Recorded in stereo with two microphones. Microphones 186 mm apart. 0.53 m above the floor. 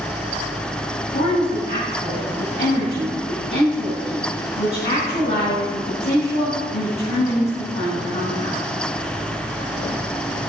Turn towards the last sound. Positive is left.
turn(degrees=55)  # may be behind; listen again after turning